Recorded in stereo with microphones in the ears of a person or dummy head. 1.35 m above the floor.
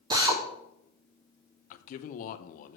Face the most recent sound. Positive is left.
turn(degrees=55)  # may be behind; listen again after turning